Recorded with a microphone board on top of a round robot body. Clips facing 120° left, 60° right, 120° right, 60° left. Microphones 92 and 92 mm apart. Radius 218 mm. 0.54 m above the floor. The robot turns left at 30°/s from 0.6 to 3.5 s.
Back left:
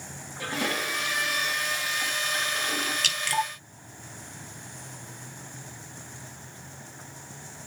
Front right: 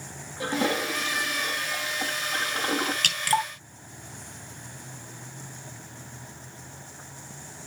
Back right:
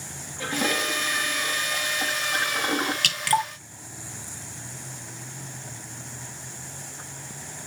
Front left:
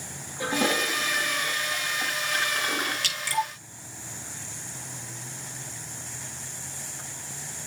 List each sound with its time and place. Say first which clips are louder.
0.4 s a toilet flushing: front right 4 dB, front left 1 dB; 5° right, 1.6 m; by 2.9 s 75° right, 1.6 m
3.0 s dripping: front right 2 dB, back right 5 dB; 95° right, 1.7 m; by 3.5 s 105° right, 1.7 m